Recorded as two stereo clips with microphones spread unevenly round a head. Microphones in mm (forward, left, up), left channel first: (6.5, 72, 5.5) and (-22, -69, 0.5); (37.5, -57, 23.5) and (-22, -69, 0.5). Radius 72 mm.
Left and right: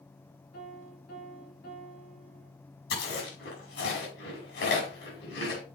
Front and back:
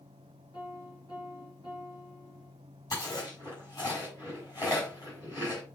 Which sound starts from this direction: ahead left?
A piano, at 0.5 s.